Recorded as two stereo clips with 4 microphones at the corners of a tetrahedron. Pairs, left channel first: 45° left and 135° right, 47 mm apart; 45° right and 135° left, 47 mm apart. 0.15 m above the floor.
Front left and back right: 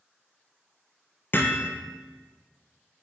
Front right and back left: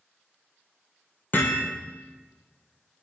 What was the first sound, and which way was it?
Hammering, straight ahead.